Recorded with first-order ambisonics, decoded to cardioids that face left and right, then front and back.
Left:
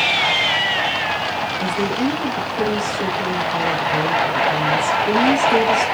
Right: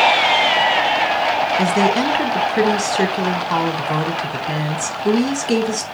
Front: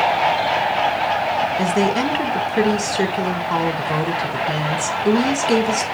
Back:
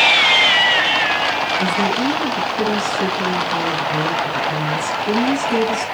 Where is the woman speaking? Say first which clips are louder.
Right 5 dB, even; 50° right, 3.5 m.